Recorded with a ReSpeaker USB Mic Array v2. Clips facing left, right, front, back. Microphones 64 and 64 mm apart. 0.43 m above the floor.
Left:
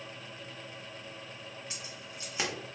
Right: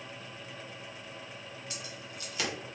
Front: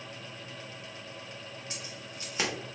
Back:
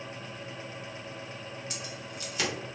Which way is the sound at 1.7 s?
40° left.